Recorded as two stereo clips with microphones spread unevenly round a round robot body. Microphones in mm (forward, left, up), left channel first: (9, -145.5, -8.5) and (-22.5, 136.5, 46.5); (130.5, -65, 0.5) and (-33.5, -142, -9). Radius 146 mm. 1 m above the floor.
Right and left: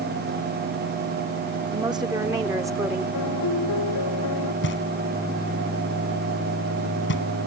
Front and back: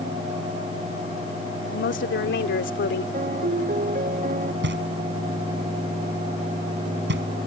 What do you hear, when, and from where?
1.7 s a woman speaking: 20° left; by 3.0 s 15° left
3.1 s a piano: 115° right
4.6 s knocking: 135° right